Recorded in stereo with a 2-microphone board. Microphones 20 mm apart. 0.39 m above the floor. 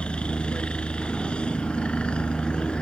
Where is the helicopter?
60° left (ahead or behind).